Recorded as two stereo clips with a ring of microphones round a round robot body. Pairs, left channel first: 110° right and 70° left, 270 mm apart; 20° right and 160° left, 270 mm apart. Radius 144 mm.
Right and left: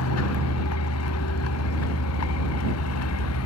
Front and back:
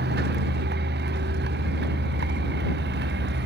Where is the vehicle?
150° right.